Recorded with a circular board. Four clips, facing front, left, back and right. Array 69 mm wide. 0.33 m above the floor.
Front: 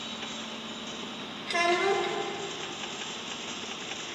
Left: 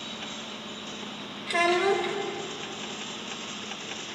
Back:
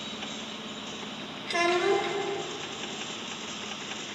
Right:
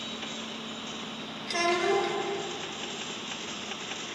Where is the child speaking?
85° left, 1.0 m.